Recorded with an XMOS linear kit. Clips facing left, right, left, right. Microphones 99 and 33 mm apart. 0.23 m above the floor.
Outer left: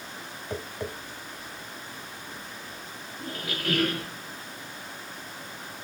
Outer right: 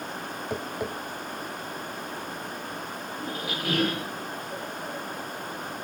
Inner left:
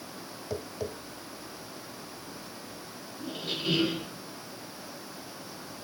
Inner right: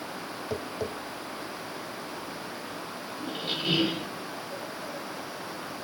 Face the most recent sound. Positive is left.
turn(degrees=-15)  # may be behind; listen again after turning